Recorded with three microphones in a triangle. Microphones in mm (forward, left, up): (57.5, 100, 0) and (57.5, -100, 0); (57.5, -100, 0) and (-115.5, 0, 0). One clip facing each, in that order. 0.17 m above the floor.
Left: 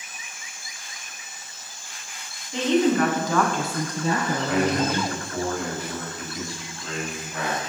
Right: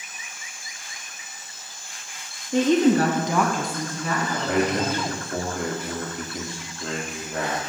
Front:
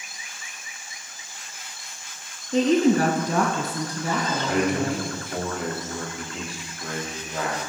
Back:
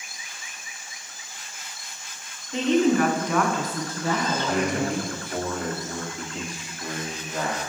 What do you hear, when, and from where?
2.5 s a woman speaking: 75° right, 1.8 m; by 5.1 s 65° left, 2.5 m
4.5 s a man speaking: 115° right, 3 m